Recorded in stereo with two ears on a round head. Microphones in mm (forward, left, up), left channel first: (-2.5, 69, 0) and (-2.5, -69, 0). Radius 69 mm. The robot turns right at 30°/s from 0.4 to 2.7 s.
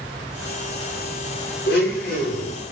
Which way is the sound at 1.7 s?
75° left (ahead or behind).